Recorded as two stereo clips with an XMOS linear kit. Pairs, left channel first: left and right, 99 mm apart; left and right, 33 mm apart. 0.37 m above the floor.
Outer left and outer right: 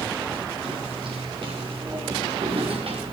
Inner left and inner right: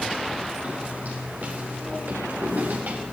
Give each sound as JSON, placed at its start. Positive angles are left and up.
{"t": 0.6, "sound": "footsteps", "side_deg": -55, "distance_m": 6.0}